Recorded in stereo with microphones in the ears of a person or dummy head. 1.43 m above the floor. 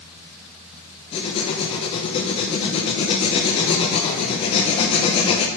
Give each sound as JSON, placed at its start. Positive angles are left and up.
{"t": 1.1, "sound": "writing", "side_deg": 30, "distance_m": 0.5}